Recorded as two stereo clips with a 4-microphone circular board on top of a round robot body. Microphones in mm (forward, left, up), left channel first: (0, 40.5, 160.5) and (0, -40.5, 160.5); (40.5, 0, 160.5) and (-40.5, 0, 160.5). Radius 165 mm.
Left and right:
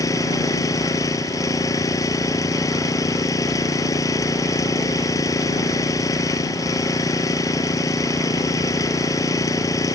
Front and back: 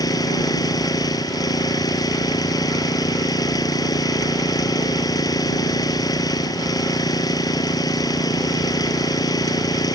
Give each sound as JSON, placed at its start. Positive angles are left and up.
{"t": 0.0, "sound": "an engine running", "azimuth_deg": 40}